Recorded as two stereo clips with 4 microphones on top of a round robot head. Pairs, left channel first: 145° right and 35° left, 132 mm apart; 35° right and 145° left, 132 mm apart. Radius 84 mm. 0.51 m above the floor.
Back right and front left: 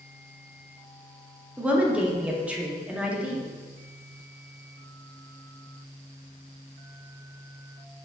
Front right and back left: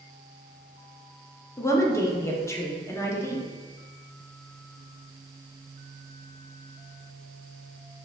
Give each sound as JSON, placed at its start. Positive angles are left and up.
{"t": 1.6, "sound": "a woman speaking", "azimuth_deg": -25, "distance_m": 0.7}